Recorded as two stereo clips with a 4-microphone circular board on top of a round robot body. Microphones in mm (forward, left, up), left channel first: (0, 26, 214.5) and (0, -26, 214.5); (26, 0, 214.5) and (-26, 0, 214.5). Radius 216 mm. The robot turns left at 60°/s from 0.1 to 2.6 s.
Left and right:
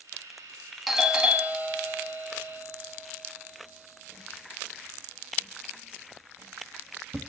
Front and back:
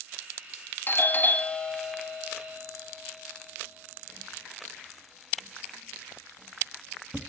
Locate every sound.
0.9 s a doorbell: straight ahead, 1.7 m; by 7.3 s 105° right, 1.7 m